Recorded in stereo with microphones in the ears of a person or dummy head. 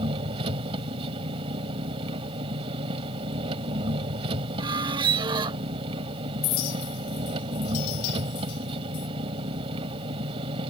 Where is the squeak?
20° right (ahead or behind).